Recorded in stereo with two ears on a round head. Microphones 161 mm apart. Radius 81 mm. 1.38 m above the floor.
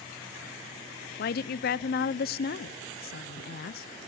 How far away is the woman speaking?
About 0.5 m.